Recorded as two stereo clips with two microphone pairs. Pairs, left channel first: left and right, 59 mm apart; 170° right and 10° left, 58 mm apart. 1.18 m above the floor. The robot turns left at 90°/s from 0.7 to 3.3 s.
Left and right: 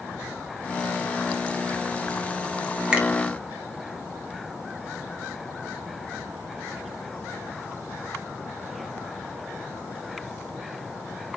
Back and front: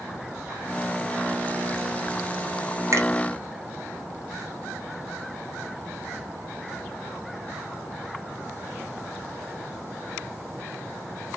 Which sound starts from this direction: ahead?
A finger snap, at 2.9 s.